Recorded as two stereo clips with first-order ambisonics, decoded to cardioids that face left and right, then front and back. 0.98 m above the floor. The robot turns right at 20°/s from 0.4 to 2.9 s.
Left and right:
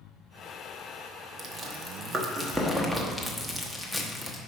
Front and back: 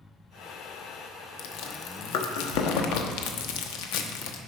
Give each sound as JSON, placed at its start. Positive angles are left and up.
{"t": 1.4, "sound": "chewing", "azimuth_deg": -30, "distance_m": 1.0}